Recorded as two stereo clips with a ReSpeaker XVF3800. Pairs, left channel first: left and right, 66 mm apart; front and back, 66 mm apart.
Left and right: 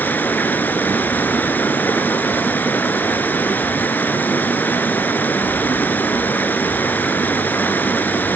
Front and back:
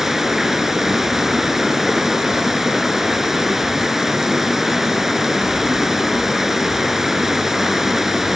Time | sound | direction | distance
0.0 | running water | 100° left | 1.1 m